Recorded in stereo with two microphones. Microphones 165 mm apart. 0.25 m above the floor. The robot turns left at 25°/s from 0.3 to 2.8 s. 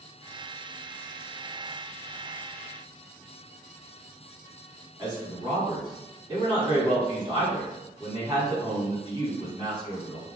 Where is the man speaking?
25° right (ahead or behind), 1.8 m.